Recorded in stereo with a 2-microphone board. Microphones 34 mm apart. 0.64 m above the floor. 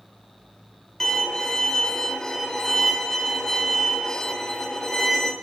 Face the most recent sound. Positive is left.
turn(degrees=15)  # may be behind; listen again after turning